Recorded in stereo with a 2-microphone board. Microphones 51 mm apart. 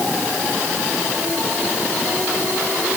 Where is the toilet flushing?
I don't hear a toilet flushing.